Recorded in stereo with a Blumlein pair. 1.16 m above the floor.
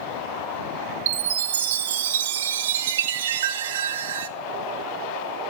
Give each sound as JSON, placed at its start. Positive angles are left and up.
{"t": 1.1, "sound": "a chime", "azimuth_deg": -60, "distance_m": 1.0}